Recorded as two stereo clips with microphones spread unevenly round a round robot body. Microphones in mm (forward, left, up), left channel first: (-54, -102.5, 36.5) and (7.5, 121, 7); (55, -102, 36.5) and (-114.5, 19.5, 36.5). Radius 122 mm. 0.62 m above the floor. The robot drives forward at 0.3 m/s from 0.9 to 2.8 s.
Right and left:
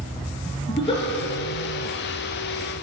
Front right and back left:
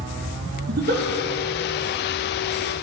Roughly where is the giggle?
Behind.